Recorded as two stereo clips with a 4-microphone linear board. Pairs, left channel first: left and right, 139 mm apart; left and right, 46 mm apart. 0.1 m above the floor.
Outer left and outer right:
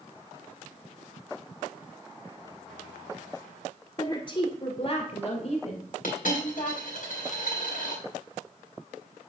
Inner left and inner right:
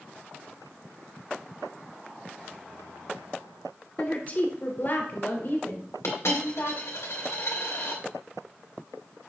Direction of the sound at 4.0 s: 30° left (ahead or behind).